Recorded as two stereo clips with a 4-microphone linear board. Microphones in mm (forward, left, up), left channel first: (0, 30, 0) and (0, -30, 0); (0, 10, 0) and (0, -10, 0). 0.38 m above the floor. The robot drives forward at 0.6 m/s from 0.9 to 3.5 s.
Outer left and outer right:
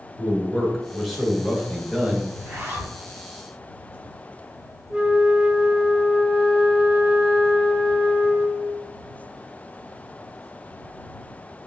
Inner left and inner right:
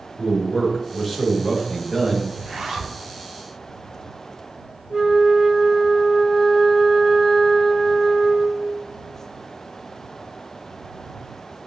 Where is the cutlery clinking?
No cutlery clinking in this recording.